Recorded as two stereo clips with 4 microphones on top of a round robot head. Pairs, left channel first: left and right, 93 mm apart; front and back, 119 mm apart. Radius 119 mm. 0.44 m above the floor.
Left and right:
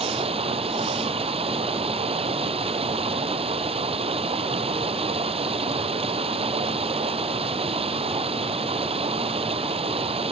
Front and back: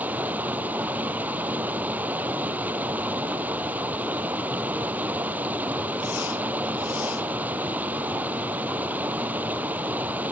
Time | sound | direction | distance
0.0 | running water | 105° right | ?